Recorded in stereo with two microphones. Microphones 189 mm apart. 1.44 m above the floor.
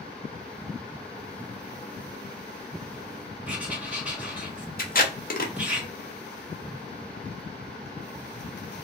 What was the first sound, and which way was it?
Writing, 10° right (ahead or behind).